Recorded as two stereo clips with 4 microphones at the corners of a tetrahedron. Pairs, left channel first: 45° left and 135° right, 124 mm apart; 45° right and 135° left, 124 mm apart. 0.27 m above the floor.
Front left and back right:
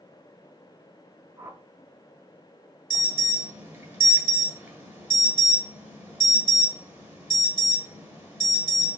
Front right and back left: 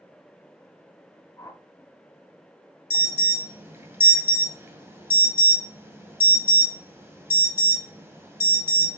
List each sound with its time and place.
1.4 s a whoosh: 80° right, 0.9 m
2.9 s an alarm: 175° left, 1.8 m